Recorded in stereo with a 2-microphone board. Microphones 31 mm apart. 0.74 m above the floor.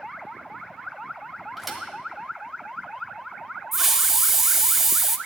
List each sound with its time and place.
1.6 s a thud: 5° right (ahead or behind), 1.4 m
3.7 s a hiss: 10° right (ahead or behind), 0.5 m